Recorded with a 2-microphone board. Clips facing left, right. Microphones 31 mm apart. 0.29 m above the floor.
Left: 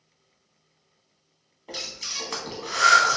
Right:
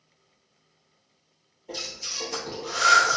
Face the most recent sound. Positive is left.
turn(degrees=70)  # may be behind; listen again after turning